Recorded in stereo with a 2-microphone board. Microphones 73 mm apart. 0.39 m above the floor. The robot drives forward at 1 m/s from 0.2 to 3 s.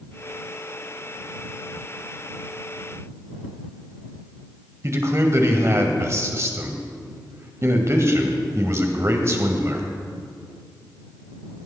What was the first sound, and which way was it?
A man speaking, 40° right (ahead or behind).